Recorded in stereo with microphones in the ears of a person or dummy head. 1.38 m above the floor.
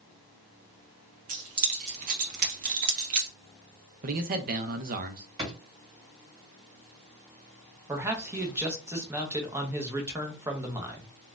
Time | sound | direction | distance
1.3 | keys jangling | 35° right (ahead or behind) | 0.6 m
4.0 | a man speaking | 45° right (ahead or behind) | 0.6 m
5.4 | a drawer | 20° right (ahead or behind) | 1.6 m
7.9 | a man speaking | 15° right (ahead or behind) | 0.9 m